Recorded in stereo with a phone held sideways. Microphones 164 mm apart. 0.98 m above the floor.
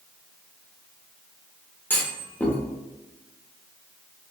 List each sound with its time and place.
1.9 s a clunk: 10° left (ahead or behind), 0.7 m